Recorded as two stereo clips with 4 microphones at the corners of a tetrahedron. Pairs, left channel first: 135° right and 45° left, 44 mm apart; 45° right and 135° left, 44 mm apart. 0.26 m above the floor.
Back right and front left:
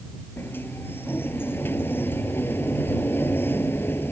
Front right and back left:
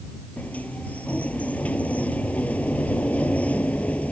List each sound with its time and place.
0.4 s a sliding door: 100° right